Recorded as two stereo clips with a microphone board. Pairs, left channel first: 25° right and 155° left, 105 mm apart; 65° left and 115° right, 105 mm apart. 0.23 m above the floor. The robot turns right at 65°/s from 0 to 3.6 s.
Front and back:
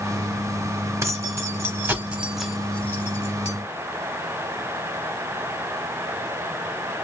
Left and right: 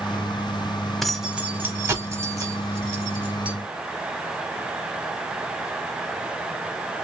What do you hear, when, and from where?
1.0 s keys jangling: 155° left, 0.8 m; by 3.5 s 40° right, 0.8 m